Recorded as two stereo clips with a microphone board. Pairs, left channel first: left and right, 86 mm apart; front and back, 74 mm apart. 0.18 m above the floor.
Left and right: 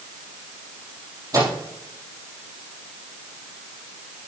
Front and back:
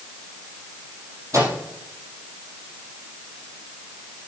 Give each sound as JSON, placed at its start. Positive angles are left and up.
{"t": 1.3, "sound": "a microwave", "azimuth_deg": -135, "distance_m": 4.5}